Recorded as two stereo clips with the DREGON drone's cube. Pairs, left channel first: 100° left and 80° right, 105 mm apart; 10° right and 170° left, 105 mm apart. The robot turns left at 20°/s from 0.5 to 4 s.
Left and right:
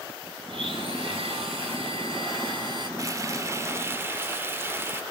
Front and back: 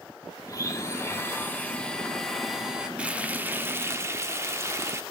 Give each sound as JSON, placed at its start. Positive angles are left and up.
{"t": 0.5, "sound": "a blender", "azimuth_deg": -60, "distance_m": 2.0}
{"t": 3.0, "sound": "frying", "azimuth_deg": -115, "distance_m": 0.8}